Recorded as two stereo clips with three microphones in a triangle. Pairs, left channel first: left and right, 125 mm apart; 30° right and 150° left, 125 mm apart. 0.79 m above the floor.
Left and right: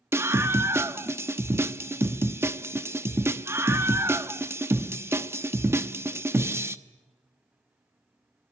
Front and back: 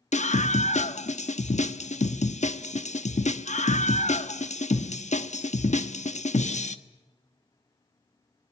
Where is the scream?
20° right, 0.9 m.